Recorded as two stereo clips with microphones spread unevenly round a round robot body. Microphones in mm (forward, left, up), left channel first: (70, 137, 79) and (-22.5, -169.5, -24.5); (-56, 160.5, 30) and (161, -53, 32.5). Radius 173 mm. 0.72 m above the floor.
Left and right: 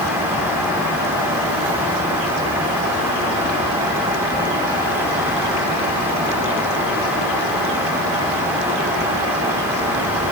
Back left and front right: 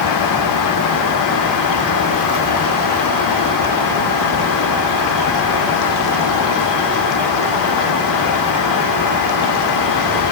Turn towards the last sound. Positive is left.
No sound to turn to.